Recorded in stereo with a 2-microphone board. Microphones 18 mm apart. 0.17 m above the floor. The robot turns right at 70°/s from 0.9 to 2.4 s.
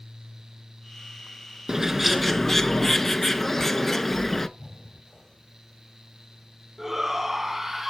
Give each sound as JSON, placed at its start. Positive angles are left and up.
{"t": 1.7, "sound": "a bird", "azimuth_deg": -35, "distance_m": 0.7}
{"t": 4.6, "sound": "breathing", "side_deg": 30, "distance_m": 1.5}
{"t": 6.8, "sound": "a shout", "side_deg": -20, "distance_m": 1.1}